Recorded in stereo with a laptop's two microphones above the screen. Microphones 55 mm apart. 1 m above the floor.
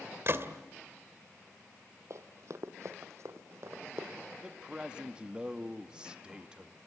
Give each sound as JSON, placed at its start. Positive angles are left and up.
{"t": 0.3, "sound": "a gunshot", "side_deg": -50, "distance_m": 2.0}
{"t": 2.1, "sound": "running footsteps", "side_deg": -60, "distance_m": 2.0}
{"t": 4.4, "sound": "a man speaking", "side_deg": -15, "distance_m": 1.7}